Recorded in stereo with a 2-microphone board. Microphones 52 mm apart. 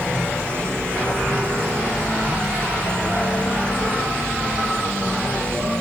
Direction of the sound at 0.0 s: 35° right (ahead or behind).